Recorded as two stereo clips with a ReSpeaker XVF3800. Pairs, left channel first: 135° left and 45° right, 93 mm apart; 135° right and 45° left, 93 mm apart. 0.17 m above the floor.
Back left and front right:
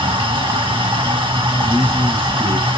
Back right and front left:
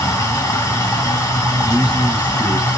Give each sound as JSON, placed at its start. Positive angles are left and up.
{"t": 0.0, "sound": "running water", "azimuth_deg": -75, "distance_m": 3.0}
{"t": 1.6, "sound": "a man speaking", "azimuth_deg": -25, "distance_m": 2.5}